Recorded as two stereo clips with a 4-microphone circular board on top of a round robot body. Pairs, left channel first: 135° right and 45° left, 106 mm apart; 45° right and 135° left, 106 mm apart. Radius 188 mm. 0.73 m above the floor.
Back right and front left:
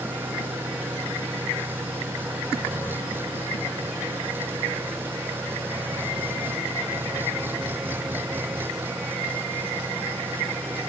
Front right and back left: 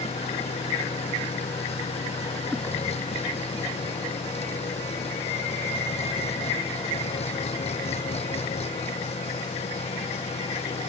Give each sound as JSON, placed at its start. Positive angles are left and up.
{"t": 0.0, "sound": "an engine running", "azimuth_deg": -25}